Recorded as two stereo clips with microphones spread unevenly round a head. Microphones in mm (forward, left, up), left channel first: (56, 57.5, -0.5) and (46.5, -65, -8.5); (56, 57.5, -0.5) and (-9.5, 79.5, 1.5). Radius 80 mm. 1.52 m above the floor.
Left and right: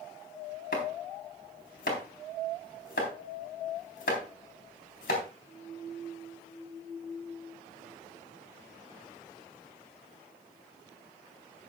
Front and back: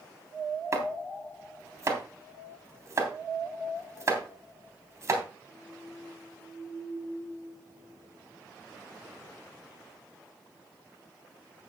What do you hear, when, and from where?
0.7 s chopping: 115° left, 3.5 m